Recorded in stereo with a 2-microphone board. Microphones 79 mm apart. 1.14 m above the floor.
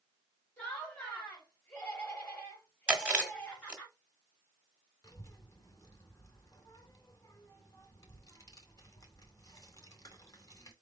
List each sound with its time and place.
0.6 s laughter: 15° left (ahead or behind), 2.5 m
2.9 s chewing: 15° right (ahead or behind), 1.3 m
5.0 s a child speaking: 45° left (ahead or behind), 2 m